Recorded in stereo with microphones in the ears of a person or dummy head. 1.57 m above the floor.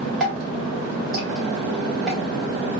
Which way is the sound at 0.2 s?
5° left (ahead or behind).